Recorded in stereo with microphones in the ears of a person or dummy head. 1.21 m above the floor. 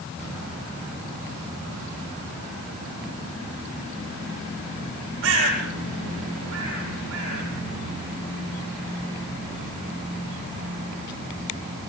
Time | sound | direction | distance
5.2 | a bird | 70° right (ahead or behind) | 9.5 m